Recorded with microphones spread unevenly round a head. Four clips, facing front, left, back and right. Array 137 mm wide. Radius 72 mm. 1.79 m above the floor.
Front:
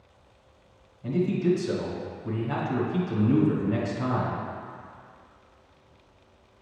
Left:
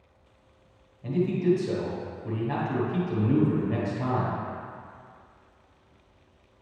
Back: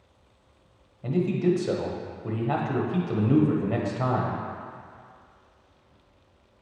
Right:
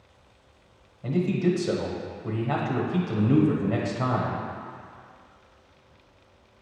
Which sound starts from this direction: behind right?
A man speaking, at 1.0 s.